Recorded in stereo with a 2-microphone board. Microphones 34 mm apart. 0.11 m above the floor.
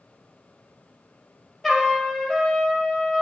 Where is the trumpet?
10° left (ahead or behind), 2.5 m.